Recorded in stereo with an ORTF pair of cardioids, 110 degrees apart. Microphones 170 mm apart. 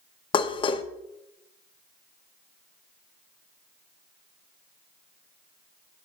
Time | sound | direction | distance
0.3 | dishes clattering | 30° left | 0.6 m